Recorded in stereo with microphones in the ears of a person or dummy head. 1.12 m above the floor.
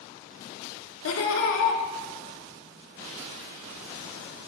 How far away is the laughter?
About 2 m.